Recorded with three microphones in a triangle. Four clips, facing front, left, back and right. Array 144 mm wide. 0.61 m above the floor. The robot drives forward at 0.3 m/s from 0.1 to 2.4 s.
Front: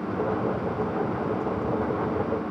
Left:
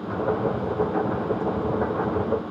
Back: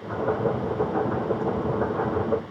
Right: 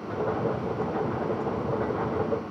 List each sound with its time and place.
Only background noise.